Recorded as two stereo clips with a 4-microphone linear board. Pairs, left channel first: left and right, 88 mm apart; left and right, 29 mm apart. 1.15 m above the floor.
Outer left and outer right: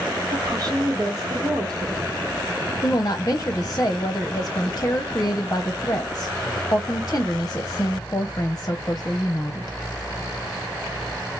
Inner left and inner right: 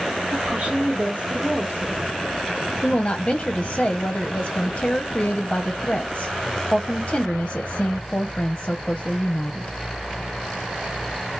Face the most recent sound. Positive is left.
turn(degrees=35)  # may be behind; listen again after turning